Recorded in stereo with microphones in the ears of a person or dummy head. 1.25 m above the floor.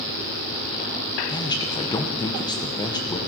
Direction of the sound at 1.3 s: 30° left (ahead or behind).